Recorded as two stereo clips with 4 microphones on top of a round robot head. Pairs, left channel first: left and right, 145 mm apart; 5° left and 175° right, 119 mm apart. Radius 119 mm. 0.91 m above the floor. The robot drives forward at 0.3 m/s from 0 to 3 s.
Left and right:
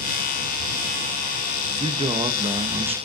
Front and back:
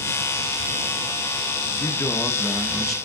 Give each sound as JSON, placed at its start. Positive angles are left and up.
{"t": 1.7, "sound": "a man speaking", "azimuth_deg": -50, "distance_m": 0.9}